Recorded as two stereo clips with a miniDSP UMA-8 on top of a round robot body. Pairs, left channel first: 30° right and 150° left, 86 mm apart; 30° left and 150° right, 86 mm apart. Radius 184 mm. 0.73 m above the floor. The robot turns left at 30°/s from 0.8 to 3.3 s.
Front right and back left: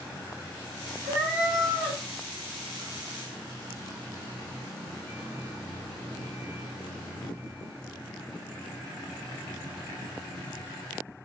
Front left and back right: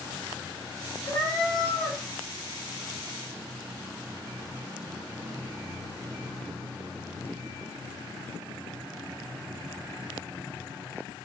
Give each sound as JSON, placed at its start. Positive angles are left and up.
{"t": 1.1, "sound": "a cat meowing", "azimuth_deg": 80, "distance_m": 0.9}